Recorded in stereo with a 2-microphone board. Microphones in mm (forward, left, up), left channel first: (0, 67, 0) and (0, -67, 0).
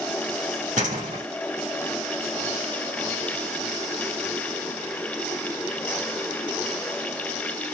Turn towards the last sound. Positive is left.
turn(degrees=-70)  # may be behind; listen again after turning